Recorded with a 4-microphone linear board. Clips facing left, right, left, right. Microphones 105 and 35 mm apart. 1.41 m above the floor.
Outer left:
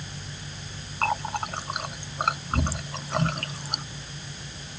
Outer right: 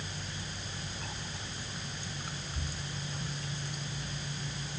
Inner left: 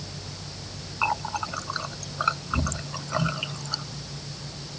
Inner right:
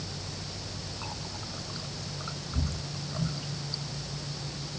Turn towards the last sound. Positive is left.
turn(degrees=85)